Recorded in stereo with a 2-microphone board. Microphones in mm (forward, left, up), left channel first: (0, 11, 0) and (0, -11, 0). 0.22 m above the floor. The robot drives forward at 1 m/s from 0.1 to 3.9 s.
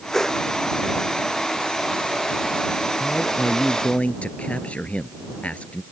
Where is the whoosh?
15° left (ahead or behind).